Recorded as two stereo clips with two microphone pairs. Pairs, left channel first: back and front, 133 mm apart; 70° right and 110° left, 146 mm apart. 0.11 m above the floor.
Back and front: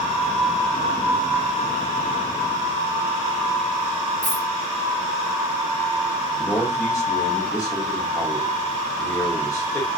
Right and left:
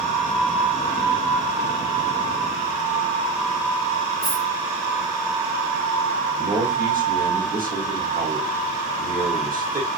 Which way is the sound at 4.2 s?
155° left.